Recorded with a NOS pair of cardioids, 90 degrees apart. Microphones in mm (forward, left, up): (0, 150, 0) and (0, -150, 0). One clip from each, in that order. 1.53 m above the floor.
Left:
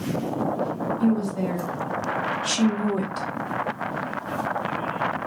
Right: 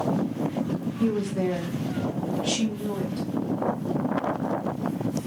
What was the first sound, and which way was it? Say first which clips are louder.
A woman speaking: right 3 dB; 20° right.